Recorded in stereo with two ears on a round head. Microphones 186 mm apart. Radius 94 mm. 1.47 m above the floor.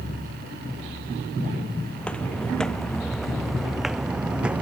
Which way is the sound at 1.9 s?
5° left (ahead or behind).